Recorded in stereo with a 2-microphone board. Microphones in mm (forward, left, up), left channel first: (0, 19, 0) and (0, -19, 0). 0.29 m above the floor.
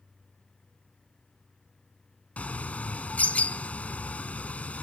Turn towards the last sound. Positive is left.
turn(degrees=40)  # may be behind; listen again after turning